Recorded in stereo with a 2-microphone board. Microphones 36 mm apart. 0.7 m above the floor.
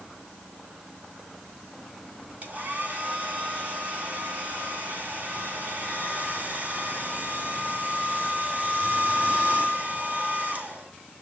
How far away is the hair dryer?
About 2.5 m.